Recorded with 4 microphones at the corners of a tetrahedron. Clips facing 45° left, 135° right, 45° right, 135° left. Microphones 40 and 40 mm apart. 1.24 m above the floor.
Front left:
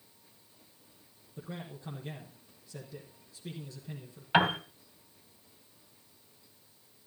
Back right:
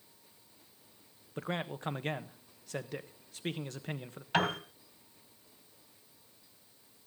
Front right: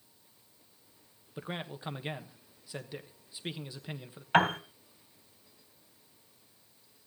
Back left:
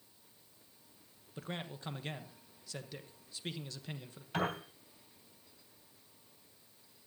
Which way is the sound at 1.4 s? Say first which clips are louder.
Back right 7 dB, front right 4 dB; 115° right.